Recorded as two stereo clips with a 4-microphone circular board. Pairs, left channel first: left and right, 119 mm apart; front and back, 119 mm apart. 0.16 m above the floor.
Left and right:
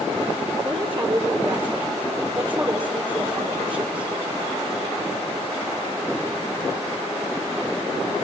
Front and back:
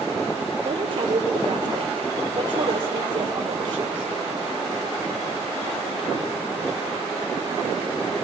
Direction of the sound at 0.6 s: 140° right.